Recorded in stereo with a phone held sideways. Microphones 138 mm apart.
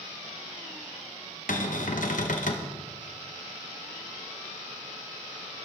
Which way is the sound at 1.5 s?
75° left (ahead or behind).